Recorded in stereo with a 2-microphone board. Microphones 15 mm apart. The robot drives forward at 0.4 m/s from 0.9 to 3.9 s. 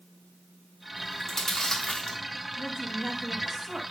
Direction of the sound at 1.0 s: 35° left (ahead or behind).